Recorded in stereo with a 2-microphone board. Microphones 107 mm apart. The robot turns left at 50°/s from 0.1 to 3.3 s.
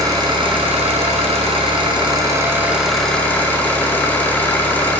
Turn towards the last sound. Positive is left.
turn(degrees=160)